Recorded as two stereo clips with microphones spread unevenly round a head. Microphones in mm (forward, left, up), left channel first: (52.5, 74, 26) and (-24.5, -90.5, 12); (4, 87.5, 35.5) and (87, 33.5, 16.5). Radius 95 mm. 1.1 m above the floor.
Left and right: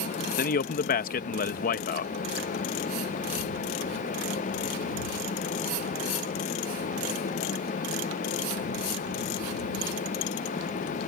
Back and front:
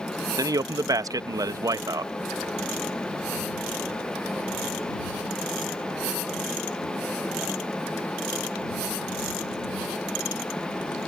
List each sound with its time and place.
0.4 s a man speaking: 20° left